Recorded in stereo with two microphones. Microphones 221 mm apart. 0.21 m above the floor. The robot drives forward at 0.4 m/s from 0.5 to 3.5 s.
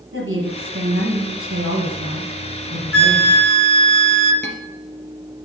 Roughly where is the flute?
Right.